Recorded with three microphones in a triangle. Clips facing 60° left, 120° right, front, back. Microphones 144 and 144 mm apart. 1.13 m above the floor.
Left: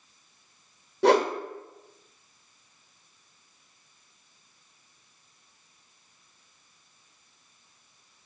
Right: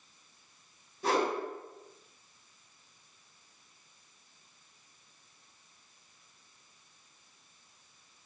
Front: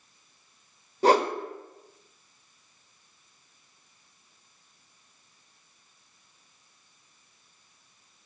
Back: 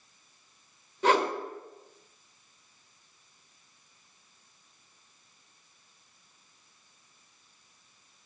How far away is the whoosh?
About 1.0 m.